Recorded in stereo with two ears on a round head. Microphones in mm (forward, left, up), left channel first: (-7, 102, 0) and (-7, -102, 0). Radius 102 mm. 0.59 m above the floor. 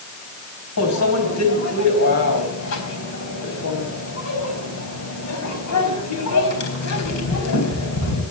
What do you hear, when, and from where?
0.8 s a microwave: 75° left (ahead or behind), 4 m